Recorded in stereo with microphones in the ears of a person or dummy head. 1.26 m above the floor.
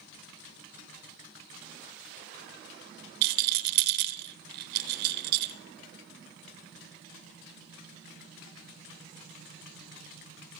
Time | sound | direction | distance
3.2 | a rattle | 60° right (ahead or behind) | 0.6 m